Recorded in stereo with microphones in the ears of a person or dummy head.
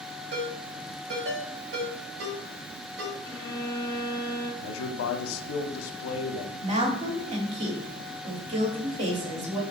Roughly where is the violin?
Centre.